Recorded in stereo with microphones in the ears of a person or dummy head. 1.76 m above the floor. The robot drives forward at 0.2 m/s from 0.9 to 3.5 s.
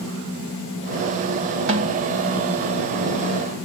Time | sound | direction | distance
1.7 | a snare drum | 70° right (ahead or behind) | 1.9 m